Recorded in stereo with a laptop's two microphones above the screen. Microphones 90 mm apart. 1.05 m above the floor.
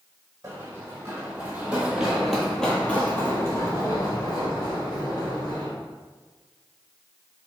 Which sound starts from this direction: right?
Running footsteps, at 0.4 s.